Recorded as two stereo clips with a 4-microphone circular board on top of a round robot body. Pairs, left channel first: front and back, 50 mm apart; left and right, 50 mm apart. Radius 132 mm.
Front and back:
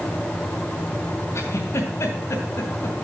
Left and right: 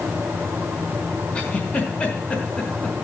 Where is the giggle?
25° left, 2 m.